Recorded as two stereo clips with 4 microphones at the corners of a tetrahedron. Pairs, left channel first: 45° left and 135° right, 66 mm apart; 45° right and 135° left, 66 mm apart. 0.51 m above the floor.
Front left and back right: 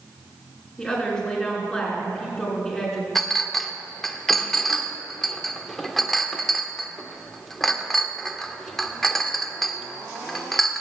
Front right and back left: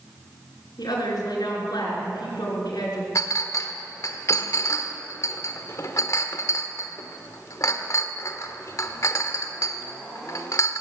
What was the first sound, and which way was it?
A woman speaking, 35° right.